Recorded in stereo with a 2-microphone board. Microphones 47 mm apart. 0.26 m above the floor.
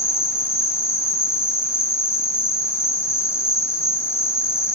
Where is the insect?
70° left (ahead or behind), 1.4 m.